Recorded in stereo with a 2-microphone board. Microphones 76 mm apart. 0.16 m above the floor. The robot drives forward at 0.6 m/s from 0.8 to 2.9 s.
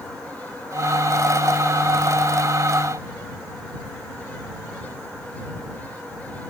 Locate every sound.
Only background noise.